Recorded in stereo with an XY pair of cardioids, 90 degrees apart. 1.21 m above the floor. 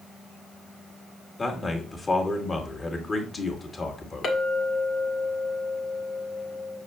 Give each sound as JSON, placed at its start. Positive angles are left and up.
{"t": 1.4, "sound": "a man speaking", "azimuth_deg": 30, "distance_m": 2.5}
{"t": 4.2, "sound": "a clink", "azimuth_deg": 60, "distance_m": 1.9}